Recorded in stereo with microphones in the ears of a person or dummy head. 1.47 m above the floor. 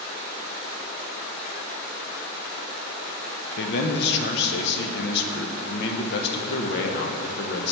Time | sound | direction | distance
3.6 | a man speaking | 70° left (ahead or behind) | 1.1 m